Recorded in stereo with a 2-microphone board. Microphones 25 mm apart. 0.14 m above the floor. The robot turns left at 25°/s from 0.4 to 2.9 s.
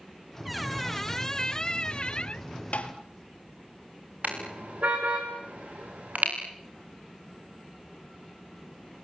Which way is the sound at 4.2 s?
80° right.